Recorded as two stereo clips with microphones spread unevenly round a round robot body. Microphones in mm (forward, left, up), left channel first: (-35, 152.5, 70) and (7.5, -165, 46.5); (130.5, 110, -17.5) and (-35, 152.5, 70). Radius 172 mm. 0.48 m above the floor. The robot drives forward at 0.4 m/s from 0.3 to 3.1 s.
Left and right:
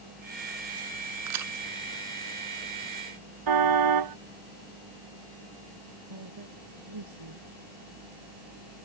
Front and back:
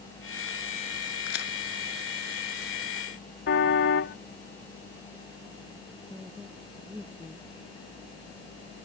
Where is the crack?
40° right.